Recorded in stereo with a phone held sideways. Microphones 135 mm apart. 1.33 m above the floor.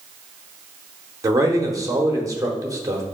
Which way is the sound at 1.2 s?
25° right (ahead or behind).